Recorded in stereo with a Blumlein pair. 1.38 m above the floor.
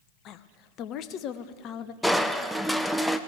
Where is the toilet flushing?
No toilet flushing in this recording.